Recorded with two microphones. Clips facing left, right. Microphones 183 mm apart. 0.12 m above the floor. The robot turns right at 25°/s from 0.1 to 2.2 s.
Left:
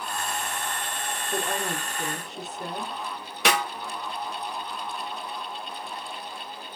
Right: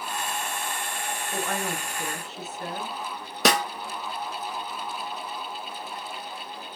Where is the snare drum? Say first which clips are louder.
Right 2 dB; 35° right (ahead or behind), 0.6 m.